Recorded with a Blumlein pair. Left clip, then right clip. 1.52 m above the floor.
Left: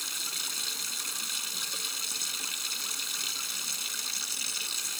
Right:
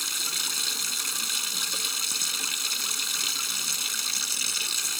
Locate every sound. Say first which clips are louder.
0.0 s running water: right 5 dB; 15° right